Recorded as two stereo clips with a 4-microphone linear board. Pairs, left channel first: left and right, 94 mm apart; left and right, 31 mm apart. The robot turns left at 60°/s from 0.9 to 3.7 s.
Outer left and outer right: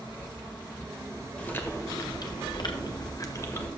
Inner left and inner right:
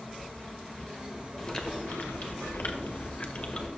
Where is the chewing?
165° left, 1.1 m; by 3.7 s 25° left, 1.1 m.